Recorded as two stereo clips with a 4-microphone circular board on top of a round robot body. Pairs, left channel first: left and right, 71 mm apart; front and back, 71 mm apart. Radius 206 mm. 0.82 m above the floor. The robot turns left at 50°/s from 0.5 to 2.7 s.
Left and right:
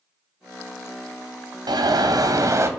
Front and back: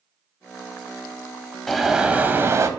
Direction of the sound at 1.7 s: 85° right.